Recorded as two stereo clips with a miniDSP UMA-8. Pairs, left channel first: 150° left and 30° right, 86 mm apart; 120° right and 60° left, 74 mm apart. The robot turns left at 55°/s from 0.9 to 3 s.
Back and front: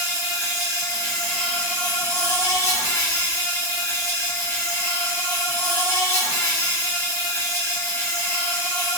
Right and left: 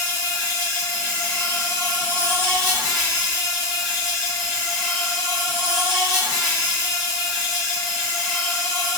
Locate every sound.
0.0 s an insect: 110° right, 1.7 m; by 9.0 s 135° left, 1.7 m